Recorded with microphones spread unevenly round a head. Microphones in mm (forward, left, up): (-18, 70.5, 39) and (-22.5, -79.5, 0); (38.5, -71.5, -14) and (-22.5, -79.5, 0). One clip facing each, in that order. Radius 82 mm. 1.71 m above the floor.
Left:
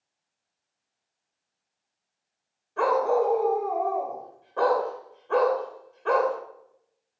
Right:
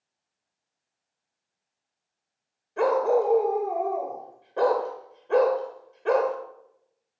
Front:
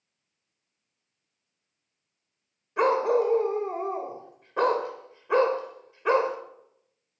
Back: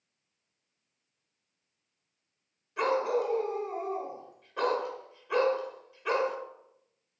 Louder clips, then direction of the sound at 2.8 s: Right 1 dB, front 6 dB; 20° right.